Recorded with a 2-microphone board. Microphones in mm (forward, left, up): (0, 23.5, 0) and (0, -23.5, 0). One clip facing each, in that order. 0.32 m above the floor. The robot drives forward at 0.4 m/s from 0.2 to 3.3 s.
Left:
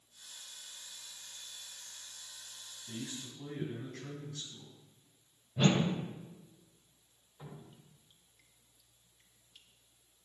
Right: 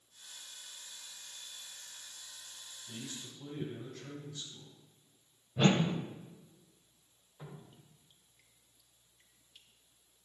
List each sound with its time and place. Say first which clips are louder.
2.9 s a man speaking: left 3 dB; 65° left (ahead or behind), 4 m; by 4.7 s 60° left (ahead or behind), 4 m
5.6 s a whoosh: right 1 dB; 15° right (ahead or behind), 0.8 m
7.4 s dripping: even; 5° right (ahead or behind), 1.1 m